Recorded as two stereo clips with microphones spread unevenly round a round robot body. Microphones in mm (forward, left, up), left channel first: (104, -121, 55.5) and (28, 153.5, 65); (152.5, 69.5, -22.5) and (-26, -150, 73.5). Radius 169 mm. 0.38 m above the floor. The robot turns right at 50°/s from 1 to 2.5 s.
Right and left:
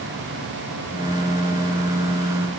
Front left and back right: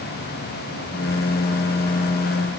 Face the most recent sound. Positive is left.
No sound to turn to.